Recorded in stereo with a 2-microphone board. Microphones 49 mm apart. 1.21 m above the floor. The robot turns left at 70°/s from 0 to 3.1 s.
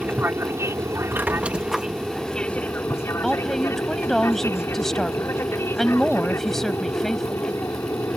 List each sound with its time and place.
0.0 s an aircraft: 35° right; by 8.2 s 110° left
1.1 s a squeak: 130° right; by 1.9 s straight behind
3.2 s a woman speaking: 5° left (ahead or behind)